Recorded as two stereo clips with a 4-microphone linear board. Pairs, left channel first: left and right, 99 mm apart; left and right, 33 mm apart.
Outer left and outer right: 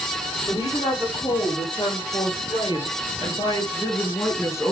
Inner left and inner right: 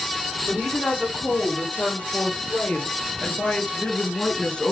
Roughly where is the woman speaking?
Left.